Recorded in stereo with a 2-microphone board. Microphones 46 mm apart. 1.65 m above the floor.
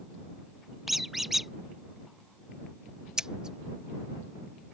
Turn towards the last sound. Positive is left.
turn(degrees=-15)  # may be behind; listen again after turning